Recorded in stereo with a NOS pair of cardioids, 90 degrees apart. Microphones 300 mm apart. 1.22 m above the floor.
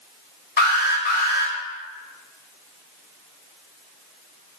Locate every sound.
0.6 s an alarm: 35° left, 1.9 m